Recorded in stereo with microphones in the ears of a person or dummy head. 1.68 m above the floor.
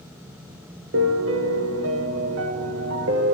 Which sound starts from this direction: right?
A piano, at 0.9 s.